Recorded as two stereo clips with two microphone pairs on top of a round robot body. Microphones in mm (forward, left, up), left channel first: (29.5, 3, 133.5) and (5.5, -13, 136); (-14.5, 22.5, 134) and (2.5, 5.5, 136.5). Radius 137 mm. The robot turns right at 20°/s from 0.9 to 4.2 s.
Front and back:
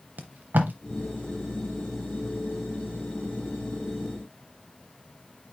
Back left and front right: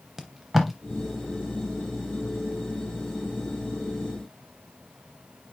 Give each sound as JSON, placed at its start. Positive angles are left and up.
{"t": 0.2, "sound": "tape being pulled", "azimuth_deg": -130, "distance_m": 0.6}